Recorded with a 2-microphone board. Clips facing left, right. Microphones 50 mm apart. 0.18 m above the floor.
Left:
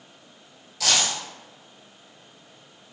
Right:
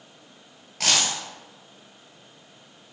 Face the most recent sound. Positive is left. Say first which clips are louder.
# even
turn(degrees=-50)  # may be behind; listen again after turning